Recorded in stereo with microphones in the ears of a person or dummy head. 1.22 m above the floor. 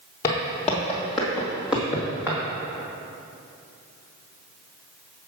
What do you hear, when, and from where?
0.2 s footsteps: 25° left (ahead or behind), 1.5 m; by 2.4 s 5° right (ahead or behind), 3 m